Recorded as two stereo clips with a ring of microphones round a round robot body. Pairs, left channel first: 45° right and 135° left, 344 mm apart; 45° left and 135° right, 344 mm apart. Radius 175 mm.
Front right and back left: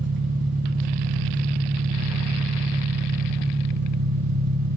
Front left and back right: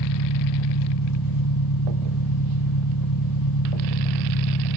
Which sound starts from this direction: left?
An engine running, at 0.0 s.